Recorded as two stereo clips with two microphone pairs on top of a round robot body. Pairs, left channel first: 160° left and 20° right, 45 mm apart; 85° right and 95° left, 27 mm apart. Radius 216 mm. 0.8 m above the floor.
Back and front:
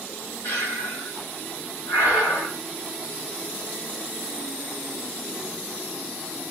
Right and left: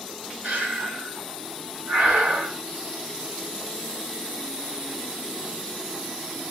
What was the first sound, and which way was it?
Breathing, 125° left.